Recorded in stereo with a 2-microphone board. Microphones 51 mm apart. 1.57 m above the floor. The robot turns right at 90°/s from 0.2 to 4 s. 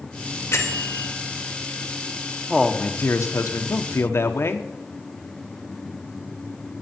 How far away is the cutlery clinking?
No cutlery clinking in this recording.